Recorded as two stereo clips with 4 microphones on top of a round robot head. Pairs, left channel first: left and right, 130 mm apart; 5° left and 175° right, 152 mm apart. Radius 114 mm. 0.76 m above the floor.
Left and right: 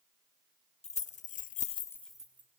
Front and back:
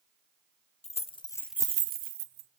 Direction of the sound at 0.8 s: 55° left.